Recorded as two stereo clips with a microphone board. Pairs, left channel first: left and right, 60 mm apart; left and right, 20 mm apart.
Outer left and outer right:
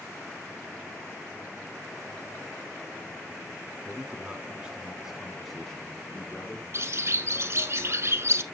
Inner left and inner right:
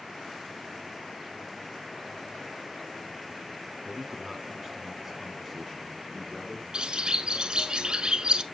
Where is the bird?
50° right (ahead or behind), 0.6 m.